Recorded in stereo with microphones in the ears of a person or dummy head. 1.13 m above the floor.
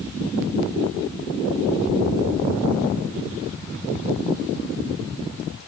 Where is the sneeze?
I don't hear a sneeze.